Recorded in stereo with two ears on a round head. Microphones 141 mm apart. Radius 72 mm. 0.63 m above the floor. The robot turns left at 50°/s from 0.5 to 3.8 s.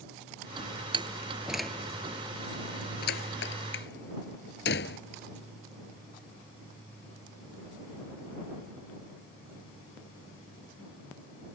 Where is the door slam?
35° right (ahead or behind); by 5.0 s 70° left (ahead or behind).